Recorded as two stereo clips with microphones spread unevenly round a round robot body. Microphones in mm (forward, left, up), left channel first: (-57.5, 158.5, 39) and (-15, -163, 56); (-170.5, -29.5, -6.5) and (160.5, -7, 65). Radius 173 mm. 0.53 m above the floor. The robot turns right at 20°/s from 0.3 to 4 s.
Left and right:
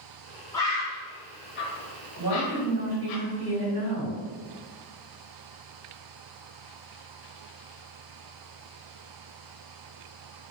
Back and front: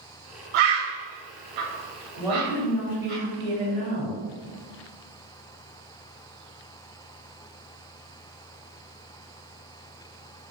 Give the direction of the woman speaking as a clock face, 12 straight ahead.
3 o'clock.